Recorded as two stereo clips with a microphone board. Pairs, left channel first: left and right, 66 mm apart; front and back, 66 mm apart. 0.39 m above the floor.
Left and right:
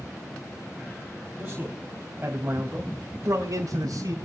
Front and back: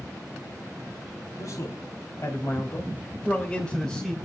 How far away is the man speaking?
About 3 m.